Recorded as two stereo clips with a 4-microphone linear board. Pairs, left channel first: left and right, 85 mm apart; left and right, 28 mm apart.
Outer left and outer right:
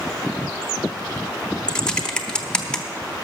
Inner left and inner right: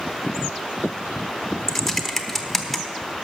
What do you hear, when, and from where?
1.7 s typing on a keyboard: 10° left (ahead or behind), 0.7 m